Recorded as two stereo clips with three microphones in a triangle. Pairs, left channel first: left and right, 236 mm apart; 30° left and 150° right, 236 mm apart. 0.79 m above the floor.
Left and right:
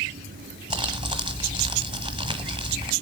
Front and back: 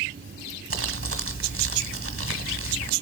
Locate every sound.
0.7 s crumpling: 160° right, 1.3 m